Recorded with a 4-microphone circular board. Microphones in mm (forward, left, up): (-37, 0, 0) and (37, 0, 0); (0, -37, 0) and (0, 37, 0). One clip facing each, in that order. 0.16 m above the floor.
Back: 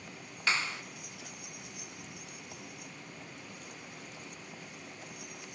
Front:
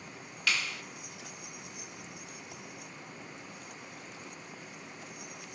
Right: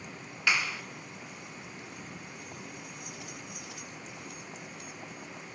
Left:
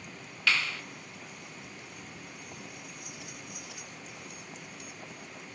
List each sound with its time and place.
0.5 s a clap: 150° right, 1.5 m